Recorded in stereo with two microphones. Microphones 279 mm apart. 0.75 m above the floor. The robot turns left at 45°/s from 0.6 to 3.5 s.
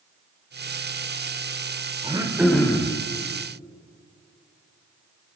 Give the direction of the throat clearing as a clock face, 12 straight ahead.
5 o'clock.